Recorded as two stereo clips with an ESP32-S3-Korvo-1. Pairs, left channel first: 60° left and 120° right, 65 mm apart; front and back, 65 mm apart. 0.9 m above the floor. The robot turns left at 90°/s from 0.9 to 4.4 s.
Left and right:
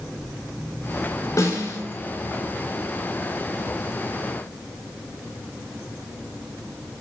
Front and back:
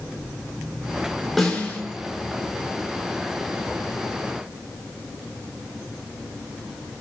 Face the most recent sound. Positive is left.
turn(degrees=175)